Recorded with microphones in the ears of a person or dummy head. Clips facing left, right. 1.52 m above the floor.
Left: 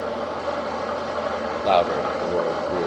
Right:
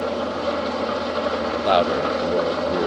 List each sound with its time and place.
0.0 s an engine running: 40° right (ahead or behind), 2 m
1.6 s a man speaking: 10° right (ahead or behind), 0.8 m